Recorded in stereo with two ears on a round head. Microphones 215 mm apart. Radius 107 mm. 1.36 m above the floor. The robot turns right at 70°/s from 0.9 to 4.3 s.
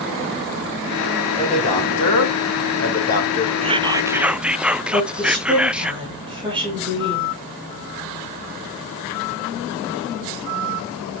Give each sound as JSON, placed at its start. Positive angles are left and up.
{"t": 1.4, "sound": "a man speaking", "azimuth_deg": 15, "distance_m": 3.5}
{"t": 3.6, "sound": "whispering", "side_deg": -25, "distance_m": 0.5}
{"t": 4.9, "sound": "a woman speaking", "side_deg": -25, "distance_m": 9.5}